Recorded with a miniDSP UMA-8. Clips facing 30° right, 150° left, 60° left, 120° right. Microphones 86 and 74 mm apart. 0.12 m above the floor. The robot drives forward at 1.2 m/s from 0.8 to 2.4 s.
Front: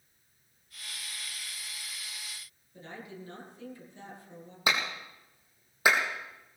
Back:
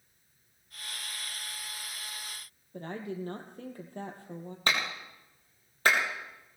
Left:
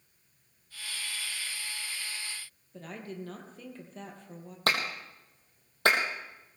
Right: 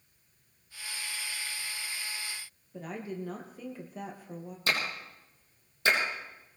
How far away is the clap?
About 3.5 m.